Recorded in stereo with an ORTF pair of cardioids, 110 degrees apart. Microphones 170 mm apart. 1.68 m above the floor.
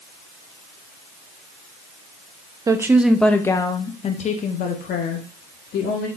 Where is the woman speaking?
20° right, 0.8 m; by 6.1 s 70° left, 1.7 m.